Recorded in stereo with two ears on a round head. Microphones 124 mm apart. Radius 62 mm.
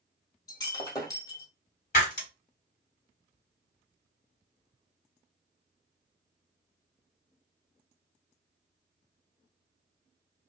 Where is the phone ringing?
I don't hear a phone ringing.